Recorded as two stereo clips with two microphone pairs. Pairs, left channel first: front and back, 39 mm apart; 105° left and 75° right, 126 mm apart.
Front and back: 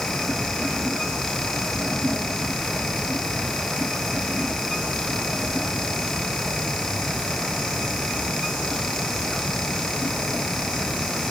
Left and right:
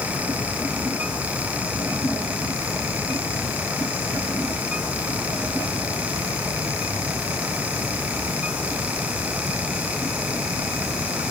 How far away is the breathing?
No breathing in this recording.